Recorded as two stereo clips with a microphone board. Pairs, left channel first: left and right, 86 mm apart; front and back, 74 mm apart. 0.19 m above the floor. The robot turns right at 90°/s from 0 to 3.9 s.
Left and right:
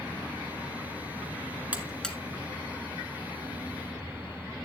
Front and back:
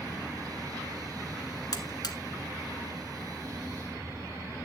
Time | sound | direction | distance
1.7 | a buzzer | 20° right | 1.6 m